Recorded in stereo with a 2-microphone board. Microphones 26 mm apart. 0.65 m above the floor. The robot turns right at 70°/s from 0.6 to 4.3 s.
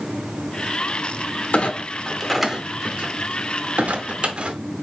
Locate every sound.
1.5 s a clunk: 55° left (ahead or behind), 0.7 m; by 4.6 s 40° right (ahead or behind), 0.7 m